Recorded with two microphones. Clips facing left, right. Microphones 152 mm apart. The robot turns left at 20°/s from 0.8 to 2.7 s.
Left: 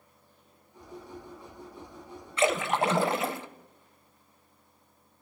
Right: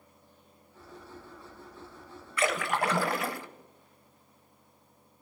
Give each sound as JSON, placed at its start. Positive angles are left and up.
{"t": 2.4, "sound": "a splash", "side_deg": 25, "distance_m": 0.8}